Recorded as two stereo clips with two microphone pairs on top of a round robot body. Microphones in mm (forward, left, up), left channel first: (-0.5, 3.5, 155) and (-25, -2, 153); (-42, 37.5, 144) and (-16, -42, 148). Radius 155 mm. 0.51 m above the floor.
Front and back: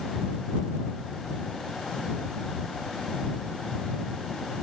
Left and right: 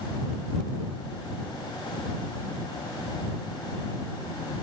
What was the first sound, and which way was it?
Only background noise.